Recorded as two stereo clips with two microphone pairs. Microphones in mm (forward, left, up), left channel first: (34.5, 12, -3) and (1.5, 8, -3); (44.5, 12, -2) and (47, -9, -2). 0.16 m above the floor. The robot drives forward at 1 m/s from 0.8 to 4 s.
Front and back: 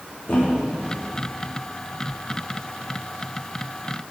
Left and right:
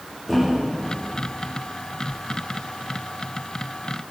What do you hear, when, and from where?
0.3 s a thud: 10° right, 4 m